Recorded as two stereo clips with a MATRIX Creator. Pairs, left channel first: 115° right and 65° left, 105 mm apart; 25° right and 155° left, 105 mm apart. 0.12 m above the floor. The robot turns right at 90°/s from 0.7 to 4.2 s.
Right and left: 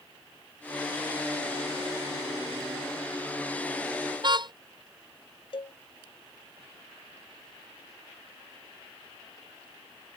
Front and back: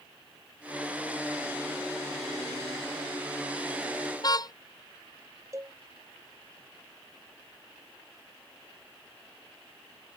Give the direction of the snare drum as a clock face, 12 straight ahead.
No snare drum in this recording.